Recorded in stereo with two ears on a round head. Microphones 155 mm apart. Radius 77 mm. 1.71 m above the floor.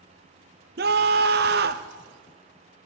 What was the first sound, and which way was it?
A scream, 60° right (ahead or behind).